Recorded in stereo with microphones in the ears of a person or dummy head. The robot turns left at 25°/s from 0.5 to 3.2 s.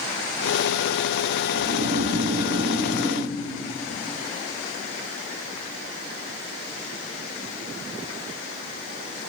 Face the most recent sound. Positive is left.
turn(degrees=-160)